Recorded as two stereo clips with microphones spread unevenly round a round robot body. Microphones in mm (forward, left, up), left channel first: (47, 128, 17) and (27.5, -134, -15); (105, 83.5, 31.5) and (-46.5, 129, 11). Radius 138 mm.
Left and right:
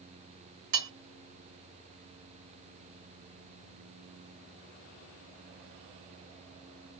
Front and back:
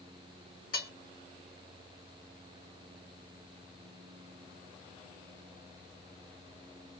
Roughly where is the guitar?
No guitar in this recording.